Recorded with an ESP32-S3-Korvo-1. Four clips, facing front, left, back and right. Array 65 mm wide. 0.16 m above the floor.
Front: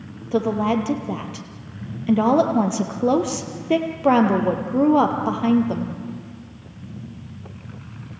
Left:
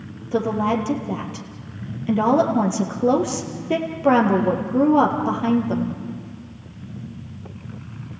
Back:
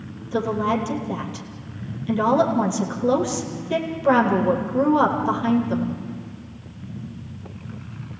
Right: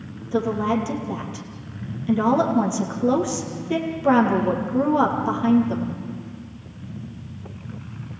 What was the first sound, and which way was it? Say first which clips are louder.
A woman speaking: left 1 dB, front 2 dB; 30° left.